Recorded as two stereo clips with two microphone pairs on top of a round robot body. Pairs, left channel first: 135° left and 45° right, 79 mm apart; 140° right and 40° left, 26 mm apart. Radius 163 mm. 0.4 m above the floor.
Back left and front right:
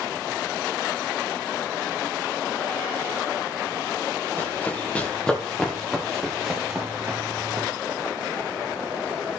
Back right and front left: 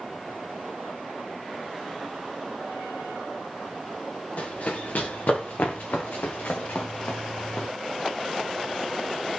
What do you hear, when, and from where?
4.4 s running footsteps: 160° right, 4 m; by 7.7 s 100° right, 2.5 m